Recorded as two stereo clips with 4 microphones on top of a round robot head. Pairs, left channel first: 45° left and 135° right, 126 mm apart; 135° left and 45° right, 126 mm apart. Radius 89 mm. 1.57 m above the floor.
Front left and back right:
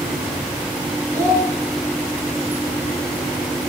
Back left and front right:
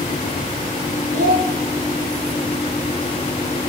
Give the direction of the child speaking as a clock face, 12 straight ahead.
2 o'clock.